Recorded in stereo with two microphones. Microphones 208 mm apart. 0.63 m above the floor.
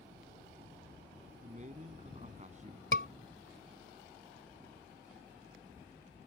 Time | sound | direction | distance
1.4 | a man speaking | 35° right (ahead or behind) | ?
2.9 | a scream | 70° left (ahead or behind) | ?